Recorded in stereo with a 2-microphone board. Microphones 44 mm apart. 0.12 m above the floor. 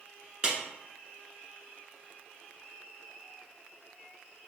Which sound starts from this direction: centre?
A clap, at 0.4 s.